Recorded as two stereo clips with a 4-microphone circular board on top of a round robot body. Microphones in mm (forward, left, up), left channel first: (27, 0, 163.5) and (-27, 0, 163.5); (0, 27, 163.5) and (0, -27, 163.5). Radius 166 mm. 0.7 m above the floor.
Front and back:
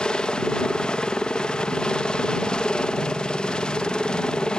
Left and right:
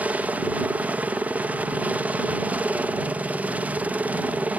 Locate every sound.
0.0 s a helicopter: 60° right